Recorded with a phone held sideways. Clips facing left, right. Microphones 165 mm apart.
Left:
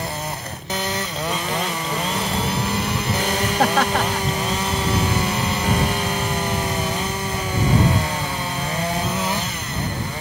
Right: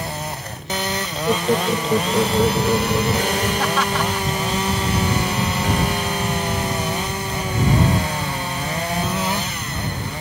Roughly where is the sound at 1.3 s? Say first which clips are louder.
Right 9 dB; right.